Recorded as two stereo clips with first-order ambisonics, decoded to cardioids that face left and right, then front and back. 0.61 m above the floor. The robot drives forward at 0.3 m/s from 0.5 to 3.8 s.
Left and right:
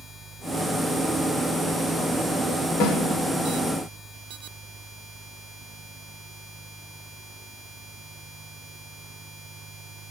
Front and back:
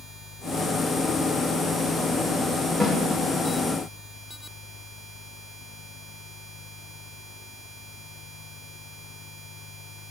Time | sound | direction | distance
2.8 | a snare drum | 105° left | 1.3 m